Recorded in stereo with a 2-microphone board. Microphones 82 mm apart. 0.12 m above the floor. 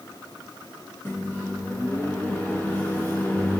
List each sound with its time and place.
1.1 s a microwave: 20° left (ahead or behind), 0.9 m